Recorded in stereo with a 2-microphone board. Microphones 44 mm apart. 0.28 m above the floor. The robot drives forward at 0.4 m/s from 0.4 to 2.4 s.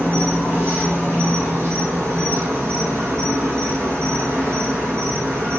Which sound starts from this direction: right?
An insect, at 0.0 s.